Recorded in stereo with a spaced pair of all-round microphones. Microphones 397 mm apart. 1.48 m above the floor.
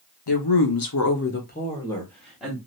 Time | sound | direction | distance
0.3 | a woman speaking | 80° left | 0.8 m